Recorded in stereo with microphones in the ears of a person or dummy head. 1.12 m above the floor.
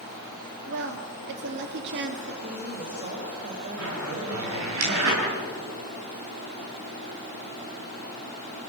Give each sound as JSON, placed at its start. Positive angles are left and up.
{"t": 0.7, "sound": "a woman speaking", "side_deg": -60, "distance_m": 3.0}
{"t": 2.4, "sound": "a woman speaking", "side_deg": -35, "distance_m": 4.5}
{"t": 3.8, "sound": "a zipper", "side_deg": -85, "distance_m": 8.0}